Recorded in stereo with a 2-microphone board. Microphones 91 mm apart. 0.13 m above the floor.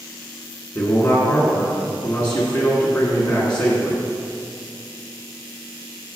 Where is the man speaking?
15° left (ahead or behind), 1.7 m.